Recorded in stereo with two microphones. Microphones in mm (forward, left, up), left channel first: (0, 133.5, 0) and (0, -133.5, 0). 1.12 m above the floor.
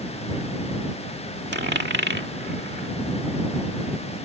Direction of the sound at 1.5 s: 40° right (ahead or behind).